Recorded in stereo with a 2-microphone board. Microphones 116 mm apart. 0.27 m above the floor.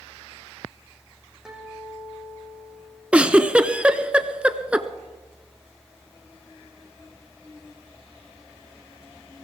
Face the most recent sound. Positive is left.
turn(degrees=-10)  # may be behind; listen again after turning